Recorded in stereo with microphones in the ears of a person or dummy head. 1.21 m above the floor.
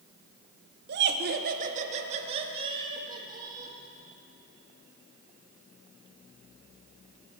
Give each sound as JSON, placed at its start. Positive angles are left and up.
{"t": 0.9, "sound": "laughter", "side_deg": -55, "distance_m": 0.9}